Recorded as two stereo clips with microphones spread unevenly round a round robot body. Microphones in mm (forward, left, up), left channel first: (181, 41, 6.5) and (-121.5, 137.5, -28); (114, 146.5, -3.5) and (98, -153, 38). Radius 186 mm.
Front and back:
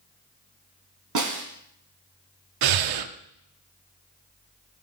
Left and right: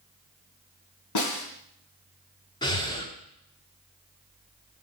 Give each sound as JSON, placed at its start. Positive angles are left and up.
{"t": 1.1, "sound": "a snare drum", "azimuth_deg": 130, "distance_m": 3.0}
{"t": 2.6, "sound": "breathing", "azimuth_deg": 165, "distance_m": 0.8}